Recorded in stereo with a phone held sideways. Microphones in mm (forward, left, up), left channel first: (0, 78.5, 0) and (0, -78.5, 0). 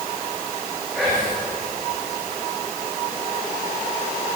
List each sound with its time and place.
0.9 s whispering: 10° right (ahead or behind), 5.5 m